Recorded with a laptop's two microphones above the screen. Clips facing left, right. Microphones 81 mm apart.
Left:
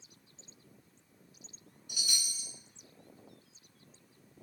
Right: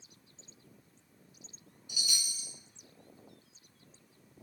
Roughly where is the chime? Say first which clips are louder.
Right 1 dB; left.